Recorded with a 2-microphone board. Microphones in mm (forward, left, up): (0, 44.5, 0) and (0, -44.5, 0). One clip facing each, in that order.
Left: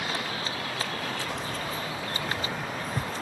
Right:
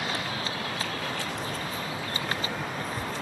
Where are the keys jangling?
85° left; by 3.1 s 80° left.